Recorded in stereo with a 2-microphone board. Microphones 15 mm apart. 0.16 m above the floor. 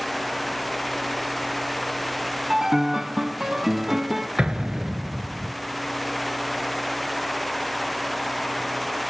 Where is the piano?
30° right (ahead or behind), 0.8 m.